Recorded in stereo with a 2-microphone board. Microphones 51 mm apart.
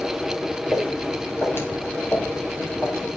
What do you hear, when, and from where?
0.7 s footsteps: 45° left (ahead or behind), 6 m; by 3.1 s 55° left (ahead or behind), 6.5 m